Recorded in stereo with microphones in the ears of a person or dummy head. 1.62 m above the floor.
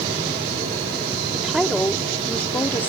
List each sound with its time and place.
1.3 s a woman speaking: 5° left (ahead or behind); by 2.9 s 15° left (ahead or behind)